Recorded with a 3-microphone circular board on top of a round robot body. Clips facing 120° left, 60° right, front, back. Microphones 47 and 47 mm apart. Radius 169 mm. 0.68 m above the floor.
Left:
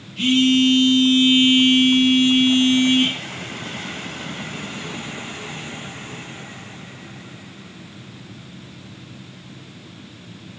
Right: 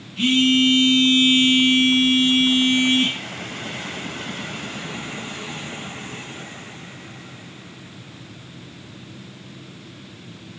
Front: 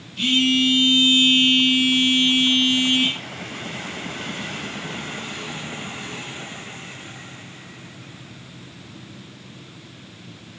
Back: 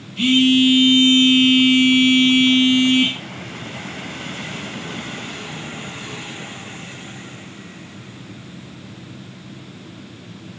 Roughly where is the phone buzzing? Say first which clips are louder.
Left 1 dB, back 5 dB; behind right.